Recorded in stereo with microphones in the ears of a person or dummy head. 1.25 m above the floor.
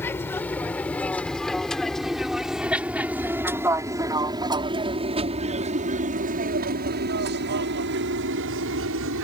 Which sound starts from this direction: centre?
An aircraft, at 0.0 s.